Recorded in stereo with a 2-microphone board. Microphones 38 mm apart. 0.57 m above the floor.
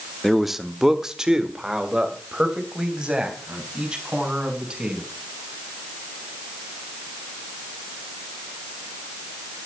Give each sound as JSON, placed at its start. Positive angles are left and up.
{"t": 0.2, "sound": "a man speaking", "side_deg": 0, "distance_m": 0.9}